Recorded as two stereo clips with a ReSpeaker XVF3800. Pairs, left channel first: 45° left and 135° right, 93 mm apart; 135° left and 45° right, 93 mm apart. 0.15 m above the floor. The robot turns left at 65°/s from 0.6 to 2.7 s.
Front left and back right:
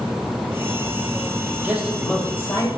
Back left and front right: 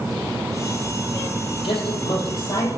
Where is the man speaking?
155° left, 5 m; by 2.7 s 90° left, 5 m.